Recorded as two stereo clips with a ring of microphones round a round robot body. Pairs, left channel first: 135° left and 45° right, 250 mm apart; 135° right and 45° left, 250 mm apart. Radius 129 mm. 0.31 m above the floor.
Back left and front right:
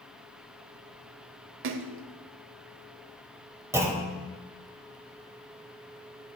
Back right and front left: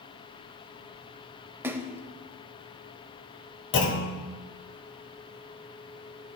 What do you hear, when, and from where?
1.6 s a splash: 35° right, 0.6 m
3.7 s a clunk: 120° right, 1.3 m